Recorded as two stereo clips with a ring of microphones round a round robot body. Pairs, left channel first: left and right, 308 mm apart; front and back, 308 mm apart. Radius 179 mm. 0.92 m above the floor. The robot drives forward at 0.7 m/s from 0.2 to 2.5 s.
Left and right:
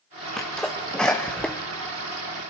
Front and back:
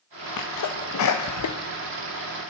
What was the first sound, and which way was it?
A sneeze, straight ahead.